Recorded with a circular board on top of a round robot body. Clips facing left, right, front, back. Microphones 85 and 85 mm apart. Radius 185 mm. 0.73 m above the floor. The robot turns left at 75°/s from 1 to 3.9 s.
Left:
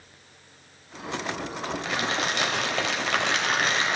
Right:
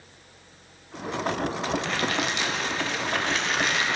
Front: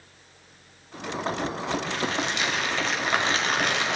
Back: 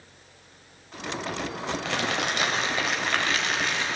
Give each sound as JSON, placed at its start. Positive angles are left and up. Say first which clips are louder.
{"t": 1.9, "sound": "crumpling", "louder": "right 1 dB, even", "azimuth_deg": 175, "distance_m": 1.8}